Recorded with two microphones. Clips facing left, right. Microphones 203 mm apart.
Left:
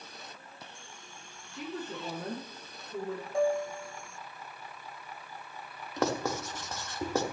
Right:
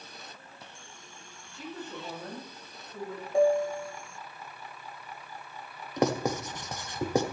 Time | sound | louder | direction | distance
1.5 | a woman speaking | left 2 dB | 80° left | 7.5 m
3.3 | a piano | right 5 dB | 30° right (ahead or behind) | 0.5 m
6.0 | writing | right 3 dB | 15° right (ahead or behind) | 1.1 m